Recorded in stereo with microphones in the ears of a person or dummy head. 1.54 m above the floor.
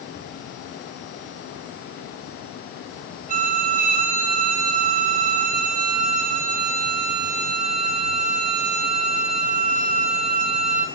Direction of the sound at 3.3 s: 45° right (ahead or behind).